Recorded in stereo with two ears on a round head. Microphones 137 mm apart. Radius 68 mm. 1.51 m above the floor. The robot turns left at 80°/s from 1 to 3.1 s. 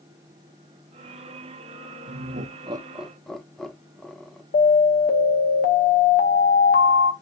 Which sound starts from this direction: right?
Laughter, at 2.1 s.